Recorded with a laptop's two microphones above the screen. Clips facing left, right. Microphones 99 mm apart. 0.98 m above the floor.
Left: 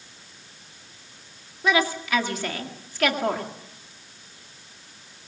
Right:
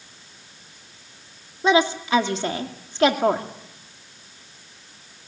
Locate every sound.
1.6 s a woman speaking: 30° right (ahead or behind), 2.0 m